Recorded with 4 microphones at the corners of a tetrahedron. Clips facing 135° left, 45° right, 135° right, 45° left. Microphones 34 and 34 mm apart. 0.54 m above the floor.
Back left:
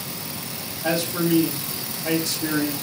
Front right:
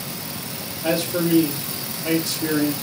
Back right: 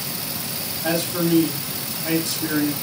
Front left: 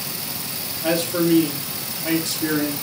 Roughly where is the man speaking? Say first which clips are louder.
Front right 1 dB, front left 3 dB; ahead left.